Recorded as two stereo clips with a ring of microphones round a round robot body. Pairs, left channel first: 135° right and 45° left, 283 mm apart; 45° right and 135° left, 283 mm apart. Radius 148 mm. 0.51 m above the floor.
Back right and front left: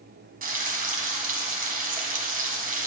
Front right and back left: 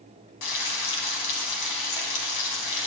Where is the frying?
20° right, 2.5 m.